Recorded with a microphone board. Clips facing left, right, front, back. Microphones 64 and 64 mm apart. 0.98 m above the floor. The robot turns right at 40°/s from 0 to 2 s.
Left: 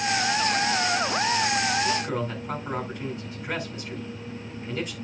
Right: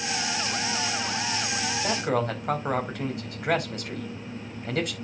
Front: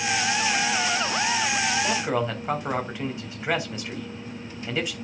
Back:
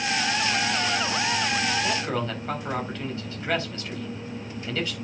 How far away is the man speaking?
About 4.5 m.